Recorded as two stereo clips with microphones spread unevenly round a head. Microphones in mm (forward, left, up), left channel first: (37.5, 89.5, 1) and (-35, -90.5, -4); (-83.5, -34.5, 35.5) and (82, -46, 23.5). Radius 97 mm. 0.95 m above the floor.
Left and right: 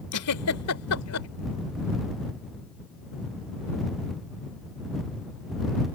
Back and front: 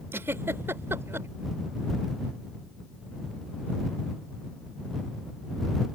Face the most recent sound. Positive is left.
turn(degrees=75)